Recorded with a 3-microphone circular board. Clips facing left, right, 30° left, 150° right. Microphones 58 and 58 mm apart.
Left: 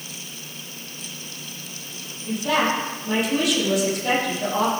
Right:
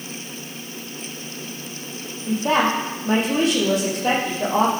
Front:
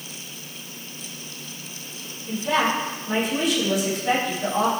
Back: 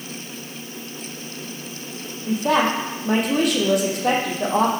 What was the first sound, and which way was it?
A woman speaking, 140° right.